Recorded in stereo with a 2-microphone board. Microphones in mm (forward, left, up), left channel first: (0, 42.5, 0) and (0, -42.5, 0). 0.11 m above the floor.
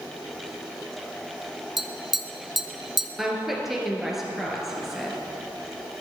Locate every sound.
1.8 s tapping: 5° right (ahead or behind), 0.7 m
3.2 s a woman speaking: 5° right (ahead or behind), 2 m